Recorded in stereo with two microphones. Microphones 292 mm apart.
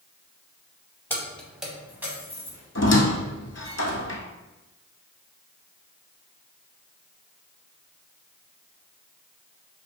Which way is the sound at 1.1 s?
5° left (ahead or behind).